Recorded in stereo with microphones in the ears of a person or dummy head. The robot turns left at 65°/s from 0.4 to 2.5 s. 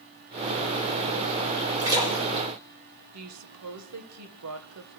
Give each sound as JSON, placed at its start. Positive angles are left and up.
{"t": 1.8, "sound": "a splash", "side_deg": -20, "distance_m": 5.0}
{"t": 3.1, "sound": "a woman speaking", "side_deg": -80, "distance_m": 1.2}